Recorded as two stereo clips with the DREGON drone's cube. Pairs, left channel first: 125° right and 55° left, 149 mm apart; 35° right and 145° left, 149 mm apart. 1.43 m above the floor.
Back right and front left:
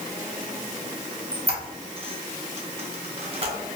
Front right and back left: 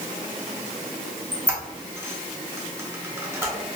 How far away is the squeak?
About 0.7 m.